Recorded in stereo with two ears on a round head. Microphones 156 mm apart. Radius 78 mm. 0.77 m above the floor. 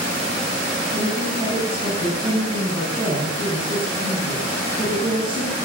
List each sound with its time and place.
0.9 s a woman speaking: 30° right (ahead or behind), 6.5 m